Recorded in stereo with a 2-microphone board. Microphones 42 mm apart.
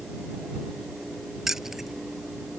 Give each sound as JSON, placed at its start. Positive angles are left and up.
{"t": 1.5, "sound": "keys jangling", "side_deg": -10}